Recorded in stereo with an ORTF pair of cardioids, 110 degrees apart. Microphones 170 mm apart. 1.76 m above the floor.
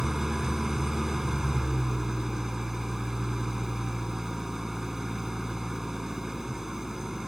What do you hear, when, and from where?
0.0 s an engine running: straight ahead